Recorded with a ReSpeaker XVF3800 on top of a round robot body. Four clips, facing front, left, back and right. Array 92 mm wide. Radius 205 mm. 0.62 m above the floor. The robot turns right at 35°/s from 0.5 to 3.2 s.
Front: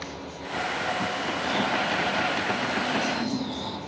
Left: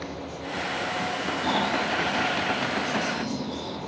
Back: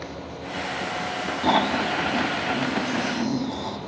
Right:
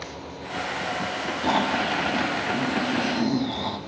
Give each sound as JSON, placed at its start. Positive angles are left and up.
{"t": 1.4, "sound": "snoring", "azimuth_deg": -170, "distance_m": 2.5}